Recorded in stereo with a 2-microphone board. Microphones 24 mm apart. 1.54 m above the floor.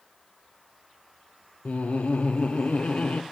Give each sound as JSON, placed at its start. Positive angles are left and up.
{"t": 1.6, "sound": "laughter", "side_deg": 60, "distance_m": 0.6}